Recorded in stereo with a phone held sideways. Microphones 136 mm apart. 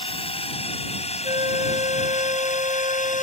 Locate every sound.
0.0 s a drone: 45° left (ahead or behind); by 3.2 s 65° left (ahead or behind)
1.2 s a flute: 45° right (ahead or behind)